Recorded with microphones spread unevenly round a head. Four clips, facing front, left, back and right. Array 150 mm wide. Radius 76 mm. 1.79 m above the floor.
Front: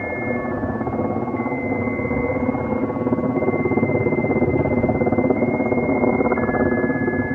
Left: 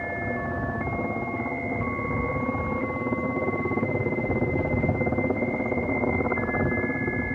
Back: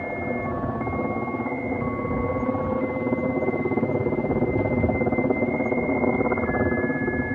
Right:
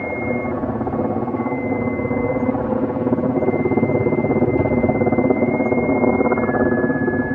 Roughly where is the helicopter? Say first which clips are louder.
Right 8 dB, front 4 dB; right.